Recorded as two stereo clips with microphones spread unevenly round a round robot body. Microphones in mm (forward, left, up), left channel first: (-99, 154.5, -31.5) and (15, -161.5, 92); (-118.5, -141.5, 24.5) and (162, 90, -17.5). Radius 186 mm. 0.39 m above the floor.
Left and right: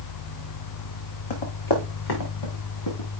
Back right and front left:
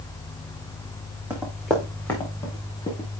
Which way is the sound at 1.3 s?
125° left.